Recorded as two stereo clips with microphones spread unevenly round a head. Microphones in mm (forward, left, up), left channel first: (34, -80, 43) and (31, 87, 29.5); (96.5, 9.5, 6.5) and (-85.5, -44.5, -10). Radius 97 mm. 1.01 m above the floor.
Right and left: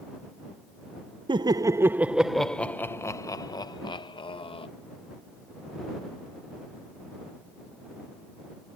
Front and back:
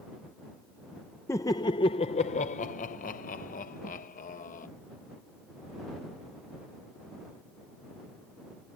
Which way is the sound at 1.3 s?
90° left.